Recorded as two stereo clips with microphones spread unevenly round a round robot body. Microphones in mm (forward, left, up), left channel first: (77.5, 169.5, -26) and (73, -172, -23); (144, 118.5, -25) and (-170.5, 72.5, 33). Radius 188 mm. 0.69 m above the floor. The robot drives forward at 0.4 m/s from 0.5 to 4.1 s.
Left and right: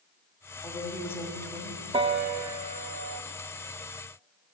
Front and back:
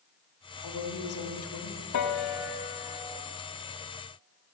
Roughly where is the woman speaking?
Ahead.